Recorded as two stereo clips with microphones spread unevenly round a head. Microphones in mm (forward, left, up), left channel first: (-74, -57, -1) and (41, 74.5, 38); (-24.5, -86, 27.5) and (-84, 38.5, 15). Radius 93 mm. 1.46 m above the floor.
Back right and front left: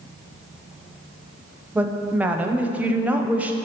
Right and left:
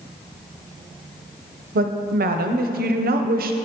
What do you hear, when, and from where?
1.8 s a woman speaking: 130° left, 0.7 m